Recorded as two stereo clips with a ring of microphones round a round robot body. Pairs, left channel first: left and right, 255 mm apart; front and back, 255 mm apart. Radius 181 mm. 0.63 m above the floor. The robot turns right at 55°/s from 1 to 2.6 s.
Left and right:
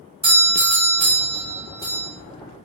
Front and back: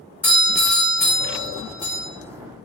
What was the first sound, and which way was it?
A doorbell, 70° right.